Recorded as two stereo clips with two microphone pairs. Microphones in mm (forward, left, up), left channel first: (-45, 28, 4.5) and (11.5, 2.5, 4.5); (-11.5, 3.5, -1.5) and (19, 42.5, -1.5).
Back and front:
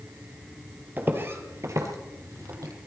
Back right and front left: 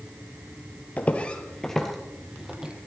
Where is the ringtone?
No ringtone in this recording.